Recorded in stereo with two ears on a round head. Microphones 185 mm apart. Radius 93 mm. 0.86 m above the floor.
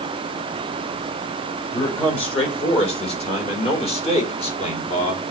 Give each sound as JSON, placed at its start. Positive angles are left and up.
{"t": 1.7, "sound": "a man speaking", "side_deg": 30, "distance_m": 4.0}